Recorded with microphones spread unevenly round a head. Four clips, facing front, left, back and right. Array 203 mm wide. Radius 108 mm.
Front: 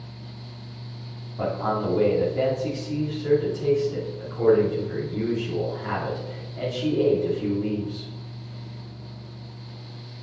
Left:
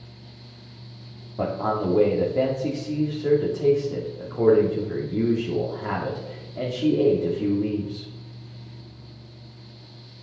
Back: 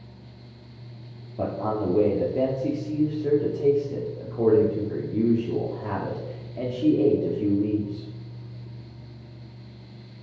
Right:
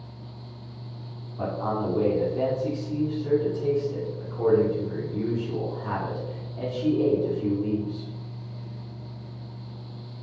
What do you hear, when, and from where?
1.4 s a man speaking: 125° left, 2.5 m